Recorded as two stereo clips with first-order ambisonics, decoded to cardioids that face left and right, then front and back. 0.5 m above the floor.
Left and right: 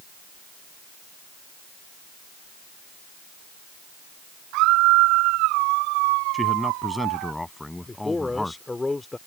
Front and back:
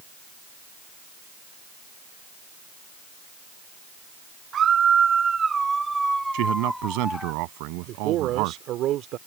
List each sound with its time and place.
4.5 s a scream: 120° right; by 7.3 s 80° right
6.3 s a man speaking: 175° left
7.9 s a man speaking: 165° left